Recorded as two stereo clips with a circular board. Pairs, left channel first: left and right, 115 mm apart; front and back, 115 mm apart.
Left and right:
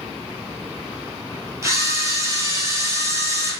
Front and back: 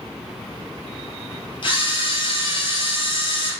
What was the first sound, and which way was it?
A camera shutter, 30° right.